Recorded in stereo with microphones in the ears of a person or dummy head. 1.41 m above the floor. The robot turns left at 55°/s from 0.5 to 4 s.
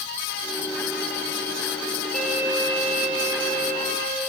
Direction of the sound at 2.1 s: 5° left.